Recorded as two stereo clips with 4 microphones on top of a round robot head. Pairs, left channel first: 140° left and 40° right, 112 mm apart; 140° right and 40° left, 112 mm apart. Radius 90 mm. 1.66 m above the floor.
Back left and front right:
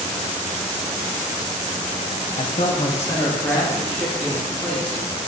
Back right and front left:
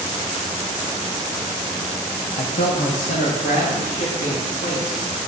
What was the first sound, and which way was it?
A man speaking, 175° left.